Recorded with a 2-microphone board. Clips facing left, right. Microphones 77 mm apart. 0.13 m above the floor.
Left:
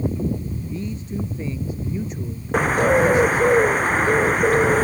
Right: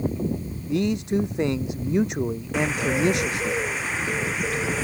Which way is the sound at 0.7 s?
80° right.